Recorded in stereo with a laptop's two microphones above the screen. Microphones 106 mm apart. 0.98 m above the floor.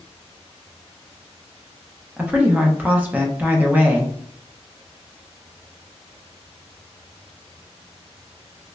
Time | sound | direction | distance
2.2 | a woman speaking | 15° right (ahead or behind) | 0.5 m